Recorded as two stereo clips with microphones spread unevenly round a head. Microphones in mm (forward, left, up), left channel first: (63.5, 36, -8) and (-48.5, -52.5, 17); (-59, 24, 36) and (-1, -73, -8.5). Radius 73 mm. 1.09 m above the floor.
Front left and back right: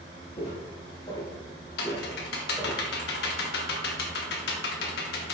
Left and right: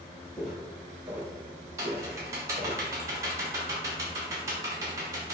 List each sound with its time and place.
0.4 s footsteps: 80° left, 1.3 m; by 2.8 s 100° right, 1.2 m
1.8 s typing on a keyboard: 20° left, 0.7 m